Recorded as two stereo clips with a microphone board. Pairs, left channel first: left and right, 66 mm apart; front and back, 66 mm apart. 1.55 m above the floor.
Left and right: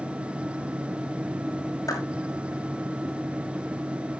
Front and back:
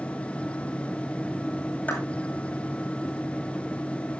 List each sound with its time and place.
1.9 s a clap: 65° left, 7.5 m